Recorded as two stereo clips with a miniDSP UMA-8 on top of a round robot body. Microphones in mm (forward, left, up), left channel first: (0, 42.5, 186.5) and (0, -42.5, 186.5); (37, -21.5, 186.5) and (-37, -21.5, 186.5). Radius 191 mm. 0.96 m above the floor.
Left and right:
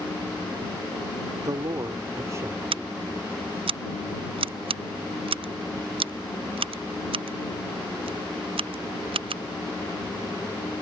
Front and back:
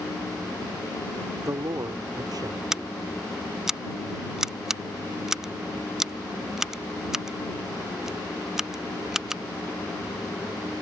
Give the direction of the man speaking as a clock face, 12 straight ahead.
4 o'clock.